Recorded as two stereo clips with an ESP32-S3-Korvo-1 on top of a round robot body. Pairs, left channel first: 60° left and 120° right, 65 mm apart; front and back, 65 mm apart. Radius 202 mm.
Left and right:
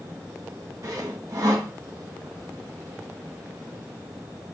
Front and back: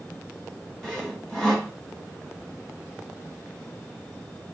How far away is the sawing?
About 1.6 m.